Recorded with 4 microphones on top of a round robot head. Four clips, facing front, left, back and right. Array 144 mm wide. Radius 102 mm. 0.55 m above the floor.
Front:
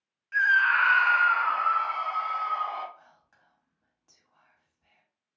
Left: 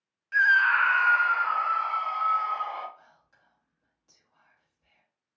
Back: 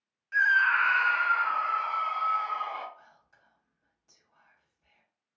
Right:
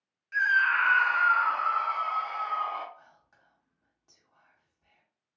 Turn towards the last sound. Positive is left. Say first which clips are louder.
# right 1 dB, even
turn(degrees=-45)